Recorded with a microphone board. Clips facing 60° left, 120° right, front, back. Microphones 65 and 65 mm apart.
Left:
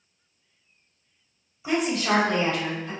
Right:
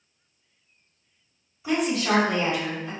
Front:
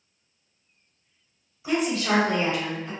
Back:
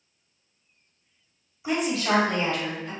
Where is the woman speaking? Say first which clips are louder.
Even, front 1 dB; 125° left, 1.0 m; by 2.9 s 55° right, 1.5 m.